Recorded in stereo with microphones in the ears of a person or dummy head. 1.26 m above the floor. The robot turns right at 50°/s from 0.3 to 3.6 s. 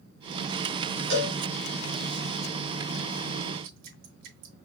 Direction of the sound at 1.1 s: 40° right (ahead or behind).